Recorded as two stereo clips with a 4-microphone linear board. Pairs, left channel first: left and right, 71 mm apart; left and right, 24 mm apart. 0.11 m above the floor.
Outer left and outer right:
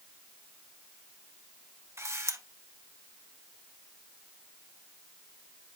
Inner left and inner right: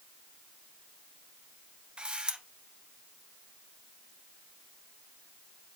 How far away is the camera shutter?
About 1.1 m.